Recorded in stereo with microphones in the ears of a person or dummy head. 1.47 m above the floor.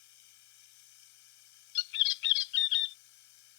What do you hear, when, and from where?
0.0 s running water: 60° left (ahead or behind)
1.8 s a bird: 55° left (ahead or behind)